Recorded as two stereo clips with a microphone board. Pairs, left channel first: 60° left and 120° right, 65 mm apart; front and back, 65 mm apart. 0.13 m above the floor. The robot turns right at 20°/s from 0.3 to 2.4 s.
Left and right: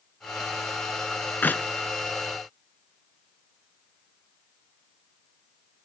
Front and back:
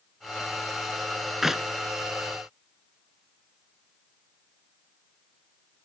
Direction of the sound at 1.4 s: 95° left.